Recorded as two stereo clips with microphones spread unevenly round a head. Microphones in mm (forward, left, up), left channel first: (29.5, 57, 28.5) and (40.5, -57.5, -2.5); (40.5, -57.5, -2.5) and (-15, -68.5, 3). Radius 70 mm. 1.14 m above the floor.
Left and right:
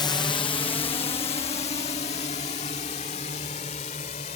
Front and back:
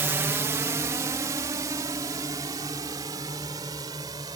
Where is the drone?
155° left; by 4.3 s 145° left.